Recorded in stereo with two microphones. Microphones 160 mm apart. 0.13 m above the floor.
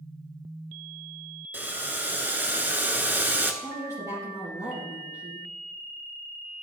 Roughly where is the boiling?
Centre.